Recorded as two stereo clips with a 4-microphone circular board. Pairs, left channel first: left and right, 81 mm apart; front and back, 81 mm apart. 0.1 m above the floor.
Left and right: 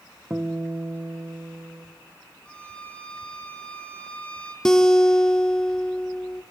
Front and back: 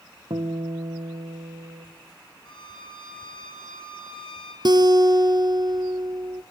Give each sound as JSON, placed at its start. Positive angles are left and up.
{"t": 0.3, "sound": "a guitar", "azimuth_deg": -160, "distance_m": 2.0}
{"t": 2.5, "sound": "a violin", "azimuth_deg": 15, "distance_m": 5.0}
{"t": 4.7, "sound": "a guitar", "azimuth_deg": 170, "distance_m": 1.2}